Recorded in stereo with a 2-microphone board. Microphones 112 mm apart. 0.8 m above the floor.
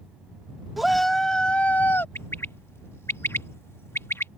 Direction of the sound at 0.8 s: Centre (ahead or behind).